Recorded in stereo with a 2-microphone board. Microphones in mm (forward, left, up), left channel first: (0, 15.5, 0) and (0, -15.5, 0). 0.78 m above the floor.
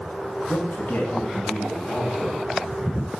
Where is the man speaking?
55° left (ahead or behind), 1.3 m; by 2.4 s 70° left (ahead or behind), 2.5 m.